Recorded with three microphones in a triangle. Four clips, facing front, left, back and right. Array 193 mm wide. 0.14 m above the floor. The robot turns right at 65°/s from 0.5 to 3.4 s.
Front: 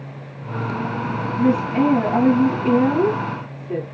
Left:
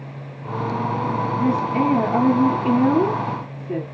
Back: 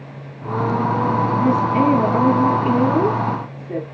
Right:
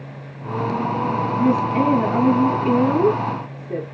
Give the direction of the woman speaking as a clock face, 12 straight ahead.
1 o'clock.